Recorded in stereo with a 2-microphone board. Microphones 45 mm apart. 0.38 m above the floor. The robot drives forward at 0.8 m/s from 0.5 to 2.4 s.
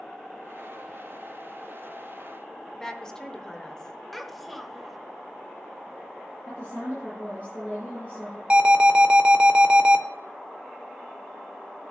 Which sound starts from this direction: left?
A woman speaking, at 6.5 s.